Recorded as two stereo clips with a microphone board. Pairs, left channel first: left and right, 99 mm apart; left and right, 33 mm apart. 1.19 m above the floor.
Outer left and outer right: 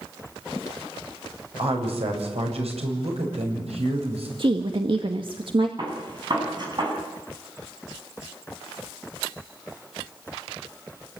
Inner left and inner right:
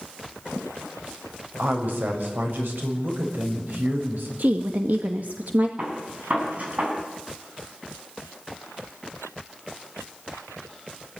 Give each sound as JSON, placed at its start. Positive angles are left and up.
{"t": 1.6, "sound": "a woman speaking", "side_deg": -85, "distance_m": 7.0}
{"t": 4.4, "sound": "a woman speaking", "side_deg": -55, "distance_m": 1.8}
{"t": 5.8, "sound": "a gunshot", "side_deg": -45, "distance_m": 9.0}